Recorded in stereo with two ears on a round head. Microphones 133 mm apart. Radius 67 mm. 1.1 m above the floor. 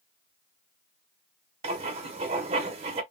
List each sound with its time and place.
1.6 s writing: 40° right (ahead or behind), 1.0 m